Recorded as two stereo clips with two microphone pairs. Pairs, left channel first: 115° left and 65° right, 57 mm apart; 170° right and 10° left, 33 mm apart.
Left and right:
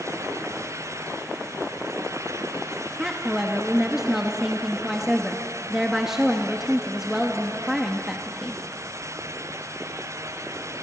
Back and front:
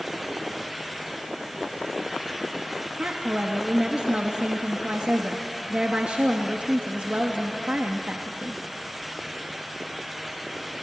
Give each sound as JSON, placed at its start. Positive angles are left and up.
{"t": 3.0, "sound": "a woman speaking", "azimuth_deg": 15, "distance_m": 1.2}